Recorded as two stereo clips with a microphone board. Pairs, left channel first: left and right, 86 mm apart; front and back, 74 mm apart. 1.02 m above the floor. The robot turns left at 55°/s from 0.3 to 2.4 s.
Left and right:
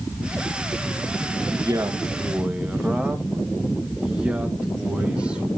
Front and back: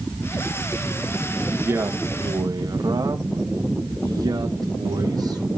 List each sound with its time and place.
1.5 s a man speaking: 115° right, 1.3 m; by 5.5 s 165° right, 1.3 m